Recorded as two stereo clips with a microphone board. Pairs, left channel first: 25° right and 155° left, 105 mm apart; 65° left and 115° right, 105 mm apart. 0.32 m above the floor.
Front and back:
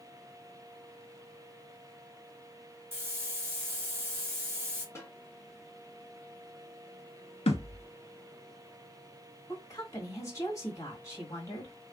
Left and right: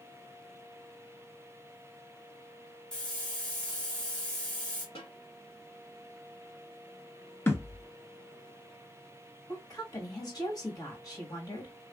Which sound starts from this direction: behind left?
A hiss, at 2.9 s.